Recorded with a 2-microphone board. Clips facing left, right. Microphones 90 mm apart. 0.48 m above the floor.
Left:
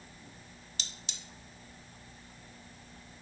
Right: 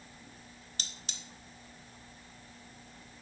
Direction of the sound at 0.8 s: 50° right (ahead or behind).